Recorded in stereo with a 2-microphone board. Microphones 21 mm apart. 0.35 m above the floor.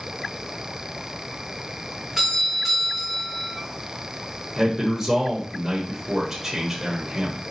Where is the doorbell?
20° right (ahead or behind), 3 m.